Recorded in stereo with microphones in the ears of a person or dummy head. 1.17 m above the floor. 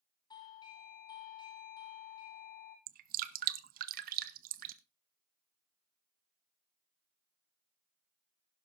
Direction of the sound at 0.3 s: 30° left (ahead or behind).